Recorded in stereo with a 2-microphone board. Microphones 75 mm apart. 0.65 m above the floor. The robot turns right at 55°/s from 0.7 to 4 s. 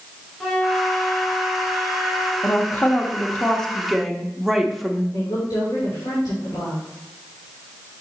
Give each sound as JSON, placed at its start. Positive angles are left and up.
{"t": 0.4, "sound": "a flute", "azimuth_deg": 5, "distance_m": 1.5}
{"t": 2.4, "sound": "a woman speaking", "side_deg": 30, "distance_m": 0.9}
{"t": 5.1, "sound": "a woman speaking", "side_deg": 65, "distance_m": 2.5}